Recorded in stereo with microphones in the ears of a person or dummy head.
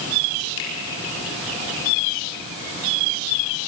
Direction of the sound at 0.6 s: 75° left (ahead or behind).